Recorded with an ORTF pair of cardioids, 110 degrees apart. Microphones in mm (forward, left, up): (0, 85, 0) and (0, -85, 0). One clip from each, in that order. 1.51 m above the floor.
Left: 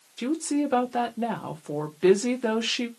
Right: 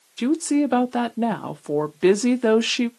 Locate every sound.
0.2 s a woman speaking: 25° right, 0.6 m